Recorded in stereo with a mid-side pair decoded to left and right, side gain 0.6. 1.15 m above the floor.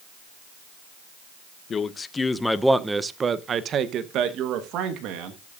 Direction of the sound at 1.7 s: 40° left.